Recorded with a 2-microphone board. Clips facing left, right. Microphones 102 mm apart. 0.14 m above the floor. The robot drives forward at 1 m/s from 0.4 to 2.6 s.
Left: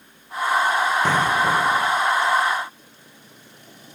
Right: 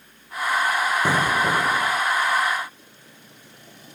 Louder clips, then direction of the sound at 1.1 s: Left 2 dB; 10° right (ahead or behind).